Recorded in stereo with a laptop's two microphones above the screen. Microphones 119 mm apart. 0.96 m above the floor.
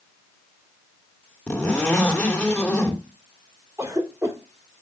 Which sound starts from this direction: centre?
A zipper, at 1.5 s.